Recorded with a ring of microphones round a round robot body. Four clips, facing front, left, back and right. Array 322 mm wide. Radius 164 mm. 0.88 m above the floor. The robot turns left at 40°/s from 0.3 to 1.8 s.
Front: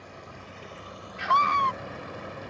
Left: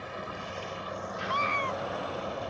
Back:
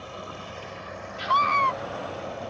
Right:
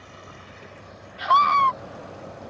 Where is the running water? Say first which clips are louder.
Left 6 dB, back 7 dB; 130° left; by 2.5 s 70° left.